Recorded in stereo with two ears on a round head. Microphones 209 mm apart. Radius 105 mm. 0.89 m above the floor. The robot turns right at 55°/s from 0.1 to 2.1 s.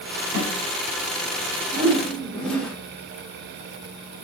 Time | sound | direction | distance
0.3 | a snare drum | 55° right (ahead or behind) | 7 m
1.7 | a whoosh | 15° right (ahead or behind) | 3 m